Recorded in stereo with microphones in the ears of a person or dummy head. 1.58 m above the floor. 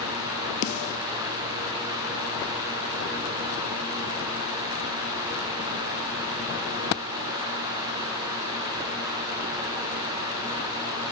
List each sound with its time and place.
0.6 s a snare drum: 50° left (ahead or behind), 0.5 m